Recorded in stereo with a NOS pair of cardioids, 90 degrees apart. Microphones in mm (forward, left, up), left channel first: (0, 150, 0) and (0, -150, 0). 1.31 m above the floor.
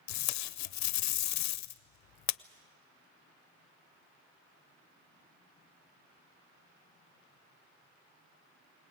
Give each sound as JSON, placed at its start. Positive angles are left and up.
{"t": 0.1, "sound": "tape being pulled", "azimuth_deg": 65, "distance_m": 0.6}